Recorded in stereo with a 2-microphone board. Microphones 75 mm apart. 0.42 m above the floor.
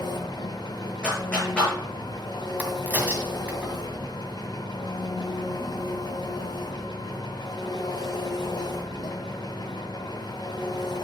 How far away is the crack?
About 2 m.